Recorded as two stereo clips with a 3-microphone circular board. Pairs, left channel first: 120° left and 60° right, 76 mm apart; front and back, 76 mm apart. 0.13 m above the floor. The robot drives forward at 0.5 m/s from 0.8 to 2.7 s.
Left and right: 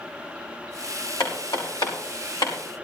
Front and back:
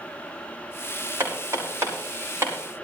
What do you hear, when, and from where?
1.2 s hammering: 125° left, 5.5 m; by 2.5 s 130° left, 5.5 m